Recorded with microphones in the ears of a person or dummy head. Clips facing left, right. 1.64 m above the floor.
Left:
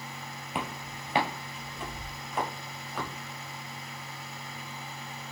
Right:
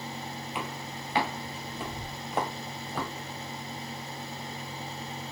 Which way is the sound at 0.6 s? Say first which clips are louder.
Left 4 dB; 40° left (ahead or behind).